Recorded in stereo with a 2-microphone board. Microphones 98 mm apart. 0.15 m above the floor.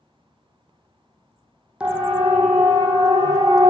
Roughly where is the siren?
Centre.